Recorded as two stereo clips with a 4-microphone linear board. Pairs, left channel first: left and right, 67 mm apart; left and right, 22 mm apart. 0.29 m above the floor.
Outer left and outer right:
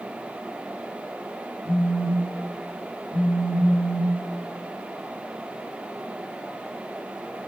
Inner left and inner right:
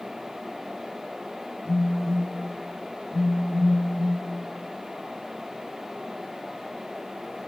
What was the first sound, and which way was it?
A phone buzzing, 20° right (ahead or behind).